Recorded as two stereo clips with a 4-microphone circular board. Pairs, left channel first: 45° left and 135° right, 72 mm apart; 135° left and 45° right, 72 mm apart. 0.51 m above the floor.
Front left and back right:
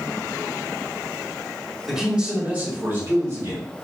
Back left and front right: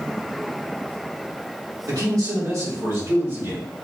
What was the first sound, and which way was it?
A man speaking, 50° right.